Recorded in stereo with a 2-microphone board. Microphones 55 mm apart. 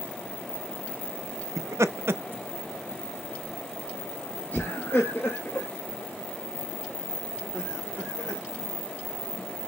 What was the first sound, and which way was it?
Laughter, 75° right (ahead or behind).